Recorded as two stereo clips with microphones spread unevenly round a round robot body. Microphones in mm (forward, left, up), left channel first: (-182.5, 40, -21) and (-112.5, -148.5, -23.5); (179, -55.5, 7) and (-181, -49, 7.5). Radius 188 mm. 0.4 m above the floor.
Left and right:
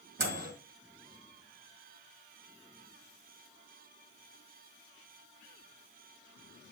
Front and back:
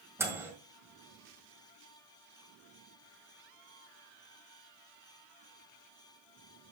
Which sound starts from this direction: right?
A microwave, at 0.2 s.